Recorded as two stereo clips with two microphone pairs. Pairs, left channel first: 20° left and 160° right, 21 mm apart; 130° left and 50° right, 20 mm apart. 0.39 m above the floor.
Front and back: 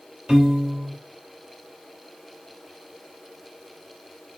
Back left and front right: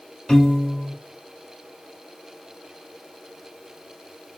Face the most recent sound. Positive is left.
turn(degrees=170)